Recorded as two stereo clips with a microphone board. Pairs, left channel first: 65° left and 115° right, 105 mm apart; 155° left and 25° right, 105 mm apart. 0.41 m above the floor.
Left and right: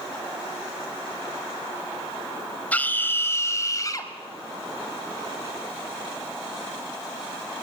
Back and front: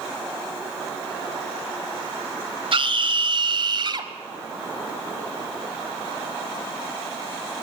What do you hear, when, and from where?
2.7 s a scream: 5° right, 2 m; by 4.1 s 20° left, 2.5 m